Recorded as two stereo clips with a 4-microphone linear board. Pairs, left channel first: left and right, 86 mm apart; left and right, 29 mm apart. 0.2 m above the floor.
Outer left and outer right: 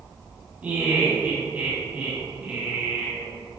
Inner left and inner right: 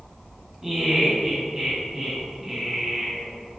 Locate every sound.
0.6 s laughter: 20° right (ahead or behind), 1.2 m